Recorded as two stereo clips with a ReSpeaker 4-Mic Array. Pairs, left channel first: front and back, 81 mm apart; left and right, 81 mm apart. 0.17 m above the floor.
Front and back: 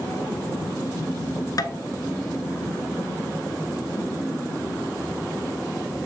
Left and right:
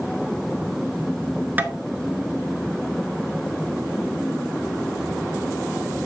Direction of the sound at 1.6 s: 30° right.